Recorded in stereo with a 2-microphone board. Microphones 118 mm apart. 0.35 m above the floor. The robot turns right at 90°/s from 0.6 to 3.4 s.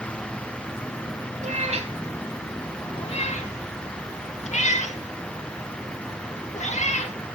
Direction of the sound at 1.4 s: 85° right.